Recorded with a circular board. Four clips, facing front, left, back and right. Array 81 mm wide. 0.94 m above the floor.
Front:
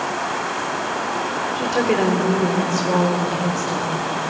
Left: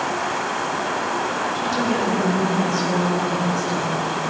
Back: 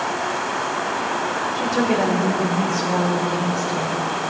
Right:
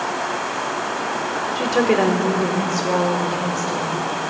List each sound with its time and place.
1.6 s a woman speaking: 70° right, 2.5 m; by 4.1 s 35° right, 4 m